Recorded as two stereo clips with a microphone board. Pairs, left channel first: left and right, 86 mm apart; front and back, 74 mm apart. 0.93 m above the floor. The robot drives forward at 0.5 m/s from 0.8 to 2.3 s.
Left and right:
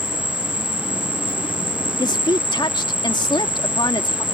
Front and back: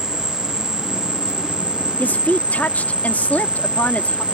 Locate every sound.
0.0 s an insect: 100° left; by 4.3 s 110° left
2.0 s a woman speaking: 65° left